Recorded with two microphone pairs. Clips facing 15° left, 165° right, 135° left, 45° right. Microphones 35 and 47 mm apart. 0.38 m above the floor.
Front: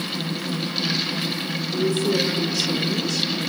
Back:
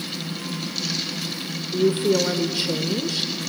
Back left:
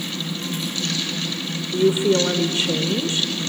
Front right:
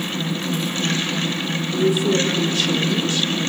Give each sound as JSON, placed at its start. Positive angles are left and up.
{"t": 1.7, "sound": "a woman speaking", "azimuth_deg": 165, "distance_m": 1.1}